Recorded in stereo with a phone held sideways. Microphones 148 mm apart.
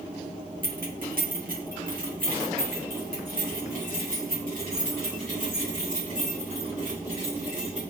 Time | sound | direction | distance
0.6 | keys jangling | 75° right (ahead or behind) | 1.0 m